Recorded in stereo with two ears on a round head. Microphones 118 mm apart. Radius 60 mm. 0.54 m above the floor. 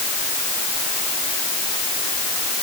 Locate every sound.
Only background noise.